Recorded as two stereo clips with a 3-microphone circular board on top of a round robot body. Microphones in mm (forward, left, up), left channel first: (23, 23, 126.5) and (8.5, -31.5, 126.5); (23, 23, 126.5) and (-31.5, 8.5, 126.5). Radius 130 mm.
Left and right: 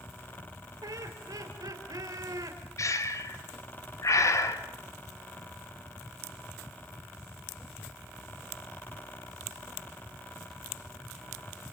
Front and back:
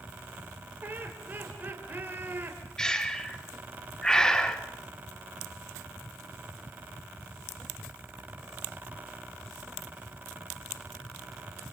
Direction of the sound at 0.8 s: 105° right.